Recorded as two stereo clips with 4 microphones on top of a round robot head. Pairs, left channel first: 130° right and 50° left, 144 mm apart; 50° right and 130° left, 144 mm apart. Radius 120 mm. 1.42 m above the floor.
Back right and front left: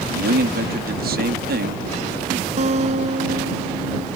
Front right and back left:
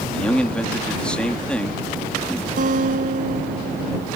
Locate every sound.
0.1 s a man speaking: 35° left
2.6 s a guitar: 95° left